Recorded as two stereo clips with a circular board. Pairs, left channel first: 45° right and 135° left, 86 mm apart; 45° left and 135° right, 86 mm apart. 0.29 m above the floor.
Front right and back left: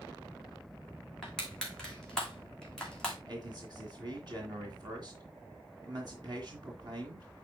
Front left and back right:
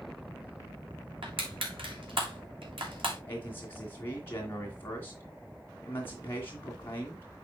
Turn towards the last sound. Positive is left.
turn(degrees=105)